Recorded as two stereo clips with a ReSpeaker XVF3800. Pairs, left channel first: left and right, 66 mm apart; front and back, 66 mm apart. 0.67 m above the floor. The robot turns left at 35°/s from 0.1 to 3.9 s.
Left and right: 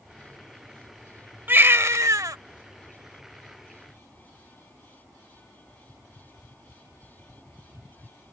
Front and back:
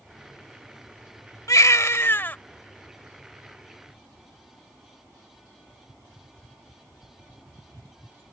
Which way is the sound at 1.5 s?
30° right.